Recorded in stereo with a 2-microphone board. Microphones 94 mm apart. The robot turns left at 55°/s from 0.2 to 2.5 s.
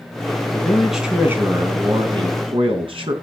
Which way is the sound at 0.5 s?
20° left.